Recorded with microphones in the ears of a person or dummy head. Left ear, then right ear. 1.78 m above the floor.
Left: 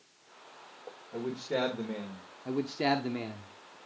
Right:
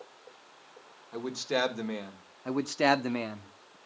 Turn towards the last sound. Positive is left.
turn(degrees=-40)  # may be behind; listen again after turning